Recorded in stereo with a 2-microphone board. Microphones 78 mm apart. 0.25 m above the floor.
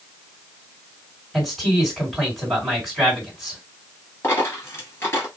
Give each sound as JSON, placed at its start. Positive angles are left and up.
{"t": 1.3, "sound": "a man speaking", "side_deg": 0, "distance_m": 2.0}
{"t": 4.2, "sound": "a dropped coin", "side_deg": 35, "distance_m": 1.5}